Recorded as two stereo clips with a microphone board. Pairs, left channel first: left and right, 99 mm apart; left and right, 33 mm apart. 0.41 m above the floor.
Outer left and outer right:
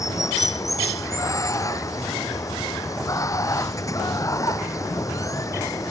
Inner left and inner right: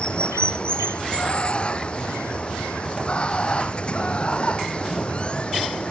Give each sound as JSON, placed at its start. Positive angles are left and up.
{"t": 0.0, "sound": "running water", "side_deg": 35}